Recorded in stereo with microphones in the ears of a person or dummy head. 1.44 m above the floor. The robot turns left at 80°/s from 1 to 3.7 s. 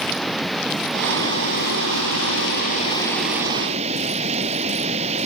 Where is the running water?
175° left; by 5.3 s 40° right.